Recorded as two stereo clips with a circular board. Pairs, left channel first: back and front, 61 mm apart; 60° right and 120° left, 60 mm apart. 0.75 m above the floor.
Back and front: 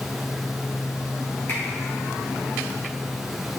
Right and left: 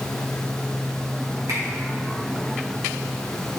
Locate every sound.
1.5 s a finger snap: 120° left, 3 m